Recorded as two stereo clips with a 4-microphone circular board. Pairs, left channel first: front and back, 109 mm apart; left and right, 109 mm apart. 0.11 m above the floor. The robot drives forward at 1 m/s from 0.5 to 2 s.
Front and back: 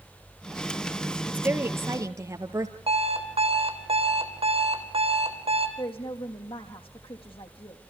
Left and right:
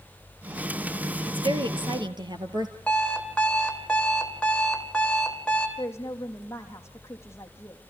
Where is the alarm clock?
170° left, 3 m.